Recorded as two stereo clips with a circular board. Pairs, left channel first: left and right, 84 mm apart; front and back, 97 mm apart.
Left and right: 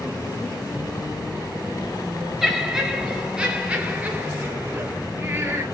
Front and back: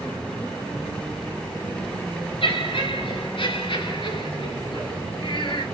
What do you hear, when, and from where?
2.4 s laughter: 5° right, 3.5 m; by 5.6 s 30° right, 4 m